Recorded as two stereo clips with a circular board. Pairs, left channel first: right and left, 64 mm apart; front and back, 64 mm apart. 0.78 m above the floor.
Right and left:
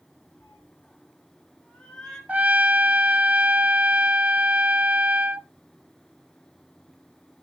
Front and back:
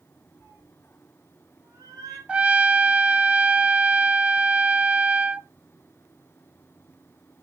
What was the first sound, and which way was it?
A cat meowing, 135° right.